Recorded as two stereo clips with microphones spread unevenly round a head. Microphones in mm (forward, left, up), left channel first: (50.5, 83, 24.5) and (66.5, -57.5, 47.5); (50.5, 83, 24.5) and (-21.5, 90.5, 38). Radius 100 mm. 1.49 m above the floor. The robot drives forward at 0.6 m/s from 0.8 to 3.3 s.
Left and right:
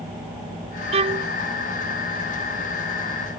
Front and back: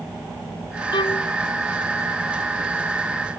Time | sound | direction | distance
0.9 | a violin | 45° right | ?